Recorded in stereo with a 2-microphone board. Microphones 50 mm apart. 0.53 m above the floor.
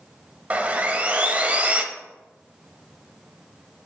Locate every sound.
0.5 s sawing: 25° right (ahead or behind), 0.8 m